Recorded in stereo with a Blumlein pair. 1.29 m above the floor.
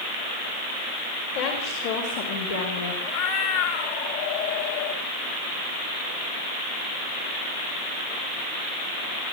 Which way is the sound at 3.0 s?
50° left.